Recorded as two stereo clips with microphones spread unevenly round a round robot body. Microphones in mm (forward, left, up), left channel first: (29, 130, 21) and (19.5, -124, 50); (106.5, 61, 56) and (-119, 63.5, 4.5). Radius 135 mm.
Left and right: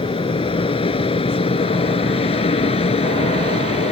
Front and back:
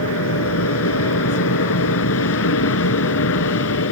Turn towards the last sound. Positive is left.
turn(degrees=20)